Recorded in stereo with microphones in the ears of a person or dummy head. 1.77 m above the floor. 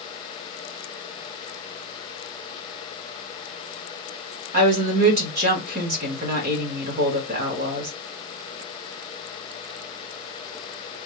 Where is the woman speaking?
55° right (ahead or behind), 1.2 m.